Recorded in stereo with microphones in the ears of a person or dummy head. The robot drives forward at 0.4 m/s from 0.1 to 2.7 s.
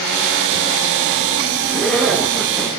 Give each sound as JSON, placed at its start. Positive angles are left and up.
{"t": 1.7, "sound": "a zipper", "side_deg": 5, "distance_m": 1.4}